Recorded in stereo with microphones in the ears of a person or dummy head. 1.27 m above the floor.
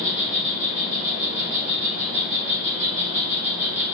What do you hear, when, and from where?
0.0 s an insect: 15° right (ahead or behind), 2.5 m